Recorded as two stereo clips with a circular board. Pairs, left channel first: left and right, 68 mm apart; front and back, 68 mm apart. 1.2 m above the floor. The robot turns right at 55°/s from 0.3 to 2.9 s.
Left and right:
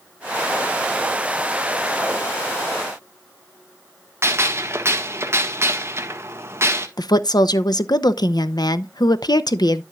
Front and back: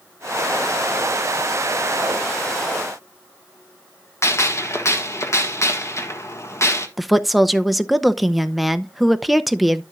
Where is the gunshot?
40° right, 1.2 m.